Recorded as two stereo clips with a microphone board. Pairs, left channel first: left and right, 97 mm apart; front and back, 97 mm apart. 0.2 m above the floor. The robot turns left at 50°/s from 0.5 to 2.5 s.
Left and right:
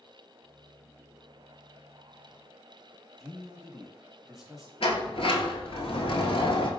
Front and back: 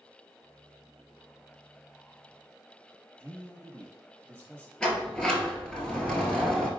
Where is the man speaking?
170° right, 1.1 m.